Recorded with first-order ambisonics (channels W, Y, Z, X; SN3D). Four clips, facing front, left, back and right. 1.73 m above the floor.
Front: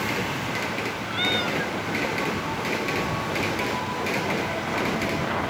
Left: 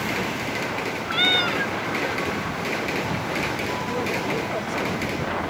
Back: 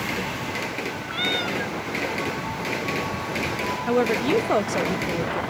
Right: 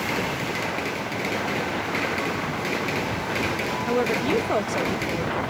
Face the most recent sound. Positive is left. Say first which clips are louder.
# right 6 dB, back 5 dB
turn(degrees=-155)